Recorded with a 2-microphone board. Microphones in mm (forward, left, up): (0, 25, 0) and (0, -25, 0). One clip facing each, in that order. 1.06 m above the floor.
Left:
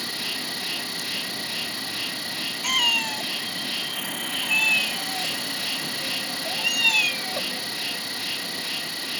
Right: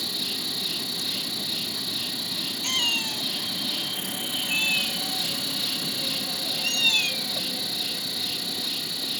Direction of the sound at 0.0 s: 50° left (ahead or behind).